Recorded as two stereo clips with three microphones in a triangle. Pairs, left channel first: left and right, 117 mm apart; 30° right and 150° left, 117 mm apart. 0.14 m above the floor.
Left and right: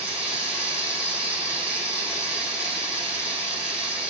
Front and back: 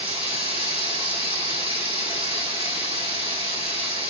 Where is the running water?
170° right, 5 m.